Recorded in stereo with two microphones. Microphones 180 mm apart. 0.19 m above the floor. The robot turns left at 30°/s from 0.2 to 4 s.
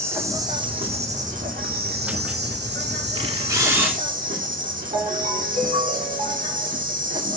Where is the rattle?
No rattle in this recording.